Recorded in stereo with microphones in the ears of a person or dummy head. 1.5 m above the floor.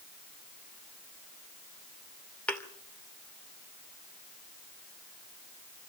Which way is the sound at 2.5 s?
5° left (ahead or behind).